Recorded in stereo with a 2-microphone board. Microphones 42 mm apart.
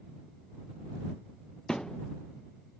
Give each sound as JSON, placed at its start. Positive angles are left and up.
{"t": 1.7, "sound": "a thud", "side_deg": 15}